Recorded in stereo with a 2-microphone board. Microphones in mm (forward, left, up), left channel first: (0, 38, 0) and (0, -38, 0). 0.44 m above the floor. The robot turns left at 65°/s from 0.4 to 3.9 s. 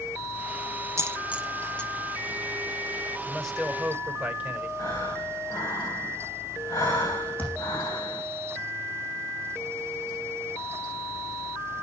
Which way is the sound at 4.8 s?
45° left (ahead or behind).